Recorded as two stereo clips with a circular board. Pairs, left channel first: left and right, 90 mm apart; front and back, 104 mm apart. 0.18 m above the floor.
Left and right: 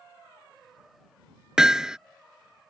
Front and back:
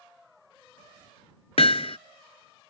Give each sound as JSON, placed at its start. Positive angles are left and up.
{"t": 1.6, "sound": "hammering", "azimuth_deg": -5}